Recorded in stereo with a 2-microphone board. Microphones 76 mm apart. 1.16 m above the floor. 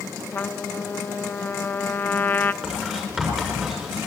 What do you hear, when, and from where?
0.3 s a trumpet: 25° left (ahead or behind), 0.8 m
2.6 s writing: 10° right (ahead or behind), 7 m